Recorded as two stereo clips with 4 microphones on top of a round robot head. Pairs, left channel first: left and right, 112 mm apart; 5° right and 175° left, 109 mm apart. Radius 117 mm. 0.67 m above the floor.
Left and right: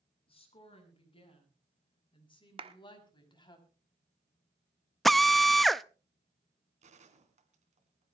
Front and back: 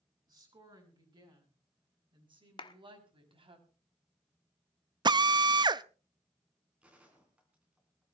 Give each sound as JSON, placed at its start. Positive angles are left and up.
{"t": 0.3, "sound": "a woman speaking", "azimuth_deg": 130, "distance_m": 7.5}
{"t": 2.6, "sound": "a clap", "azimuth_deg": -50, "distance_m": 1.2}
{"t": 5.0, "sound": "a drill", "azimuth_deg": 180, "distance_m": 0.7}
{"t": 6.8, "sound": "a gunshot", "azimuth_deg": -100, "distance_m": 3.0}